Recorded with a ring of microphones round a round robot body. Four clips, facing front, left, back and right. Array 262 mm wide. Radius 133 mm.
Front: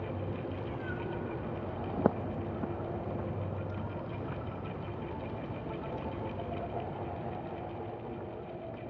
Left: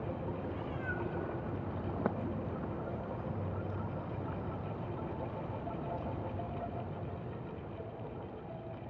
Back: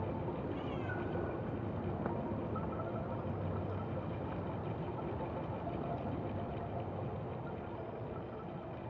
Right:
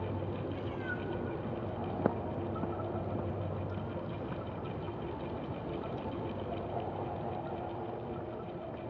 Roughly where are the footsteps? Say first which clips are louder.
Right 3 dB, front 11 dB; ahead.